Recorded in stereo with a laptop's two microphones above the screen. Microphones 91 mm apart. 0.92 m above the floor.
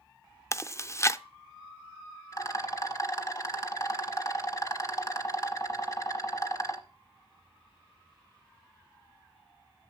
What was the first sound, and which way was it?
Chewing, 30° left (ahead or behind).